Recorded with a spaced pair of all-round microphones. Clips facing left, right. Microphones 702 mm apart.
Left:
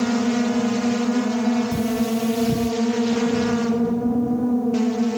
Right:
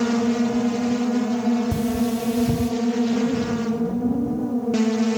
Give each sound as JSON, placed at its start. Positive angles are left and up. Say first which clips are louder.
{"t": 1.7, "sound": "cutlery clinking", "louder": "left 1 dB", "side_deg": -80, "distance_m": 5.0}